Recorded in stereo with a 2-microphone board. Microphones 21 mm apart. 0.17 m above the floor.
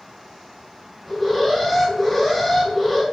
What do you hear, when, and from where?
1.1 s an alarm: 25° left (ahead or behind), 1.7 m